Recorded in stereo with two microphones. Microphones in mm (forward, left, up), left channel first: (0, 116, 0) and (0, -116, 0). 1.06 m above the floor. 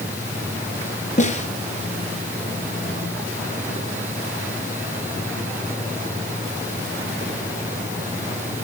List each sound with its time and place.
1.2 s a snare drum: 30° left (ahead or behind), 3 m